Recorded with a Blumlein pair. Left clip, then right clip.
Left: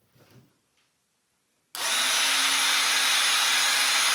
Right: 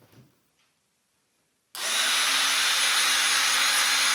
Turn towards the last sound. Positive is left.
turn(degrees=15)